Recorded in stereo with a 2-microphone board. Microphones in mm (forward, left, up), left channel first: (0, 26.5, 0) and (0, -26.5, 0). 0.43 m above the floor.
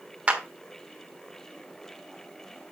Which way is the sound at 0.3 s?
25° right (ahead or behind).